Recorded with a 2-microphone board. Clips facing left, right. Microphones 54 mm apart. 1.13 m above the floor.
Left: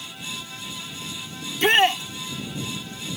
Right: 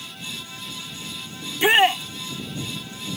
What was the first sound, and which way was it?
A shout, 10° right (ahead or behind).